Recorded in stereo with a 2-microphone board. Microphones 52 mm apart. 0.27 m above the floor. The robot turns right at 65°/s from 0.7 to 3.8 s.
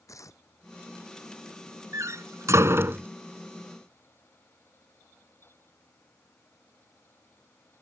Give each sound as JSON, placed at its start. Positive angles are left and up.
{"t": 0.1, "sound": "tearing paper", "side_deg": 75}
{"t": 1.9, "sound": "a door slam", "side_deg": -60}